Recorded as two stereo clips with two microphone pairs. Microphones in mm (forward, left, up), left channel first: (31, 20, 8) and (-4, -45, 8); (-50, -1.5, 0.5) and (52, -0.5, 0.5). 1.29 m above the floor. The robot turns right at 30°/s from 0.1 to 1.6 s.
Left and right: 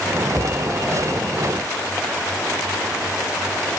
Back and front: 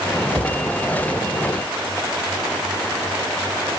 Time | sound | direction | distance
0.3 | a cupboard door | 20° left | 1.7 m